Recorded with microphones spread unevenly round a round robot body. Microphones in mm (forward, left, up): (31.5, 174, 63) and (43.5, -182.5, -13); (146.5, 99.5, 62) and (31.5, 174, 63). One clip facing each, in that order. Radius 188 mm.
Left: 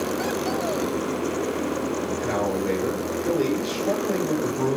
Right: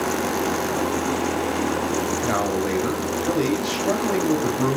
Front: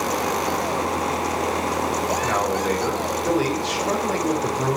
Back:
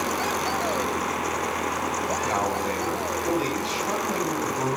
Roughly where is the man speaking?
Ahead right.